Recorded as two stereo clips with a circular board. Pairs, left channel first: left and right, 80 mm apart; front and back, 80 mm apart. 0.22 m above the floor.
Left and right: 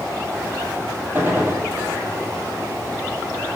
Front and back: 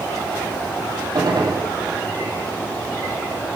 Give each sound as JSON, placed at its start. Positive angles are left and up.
{"t": 1.1, "sound": "a gunshot", "azimuth_deg": -155, "distance_m": 1.4}